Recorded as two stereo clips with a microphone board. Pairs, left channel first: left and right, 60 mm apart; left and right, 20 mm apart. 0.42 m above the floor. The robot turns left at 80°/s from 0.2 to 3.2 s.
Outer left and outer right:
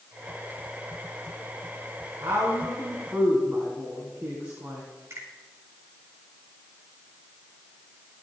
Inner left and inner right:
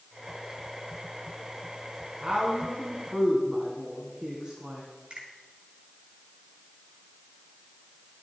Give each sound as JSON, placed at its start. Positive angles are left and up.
{"t": 2.2, "sound": "a woman speaking", "side_deg": -65, "distance_m": 3.5}
{"t": 5.1, "sound": "a finger snap", "side_deg": -50, "distance_m": 7.0}